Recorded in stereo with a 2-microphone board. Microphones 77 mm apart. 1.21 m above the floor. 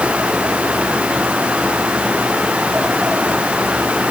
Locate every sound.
Only background noise.